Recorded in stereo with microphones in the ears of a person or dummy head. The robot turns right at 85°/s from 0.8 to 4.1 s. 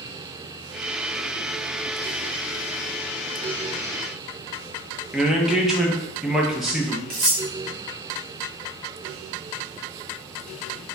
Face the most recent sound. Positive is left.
turn(degrees=-60)  # may be behind; listen again after turning